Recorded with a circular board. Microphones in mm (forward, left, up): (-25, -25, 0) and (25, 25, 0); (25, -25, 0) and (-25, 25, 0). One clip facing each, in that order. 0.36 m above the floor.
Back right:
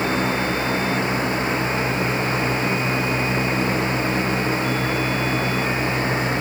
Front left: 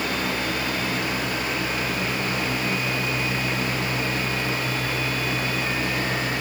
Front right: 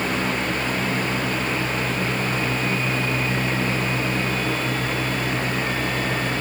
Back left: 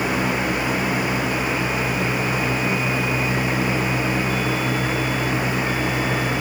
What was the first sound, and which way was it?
Only background noise.